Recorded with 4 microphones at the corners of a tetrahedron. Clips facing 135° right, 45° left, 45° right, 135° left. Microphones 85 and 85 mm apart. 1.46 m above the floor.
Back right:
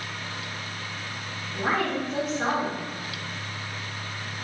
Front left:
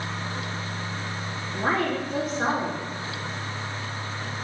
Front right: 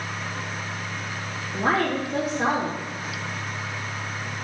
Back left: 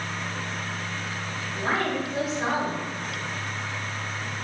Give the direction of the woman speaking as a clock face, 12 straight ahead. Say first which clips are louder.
Front left 1 dB, front right 4 dB; 1 o'clock.